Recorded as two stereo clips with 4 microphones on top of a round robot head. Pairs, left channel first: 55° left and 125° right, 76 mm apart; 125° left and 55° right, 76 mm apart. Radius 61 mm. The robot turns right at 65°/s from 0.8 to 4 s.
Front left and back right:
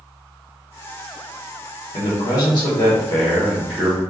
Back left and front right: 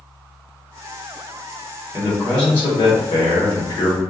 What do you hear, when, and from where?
1.9 s a man speaking: 25° left, 1.1 m; by 4.0 s 160° left, 1.1 m